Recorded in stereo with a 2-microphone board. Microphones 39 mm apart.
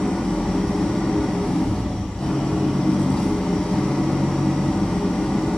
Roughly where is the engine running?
Left.